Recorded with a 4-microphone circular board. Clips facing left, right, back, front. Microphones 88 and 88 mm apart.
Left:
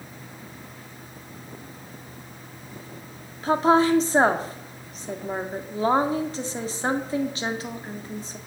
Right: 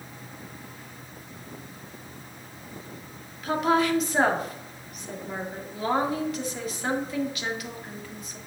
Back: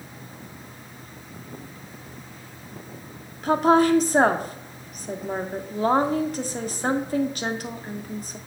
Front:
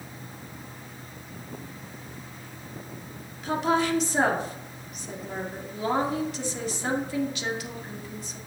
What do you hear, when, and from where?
3.4 s a woman speaking: 145° left, 1.7 m